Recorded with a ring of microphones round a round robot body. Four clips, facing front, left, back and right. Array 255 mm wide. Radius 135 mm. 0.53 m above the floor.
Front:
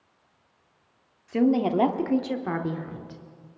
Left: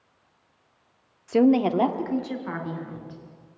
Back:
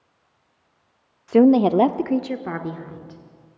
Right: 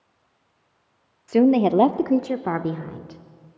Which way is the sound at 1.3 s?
175° right.